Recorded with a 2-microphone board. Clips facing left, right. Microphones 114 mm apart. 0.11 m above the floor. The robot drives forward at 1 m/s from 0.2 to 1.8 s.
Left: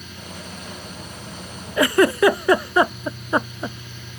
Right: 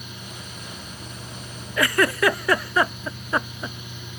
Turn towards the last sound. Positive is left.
turn(degrees=20)  # may be behind; listen again after turning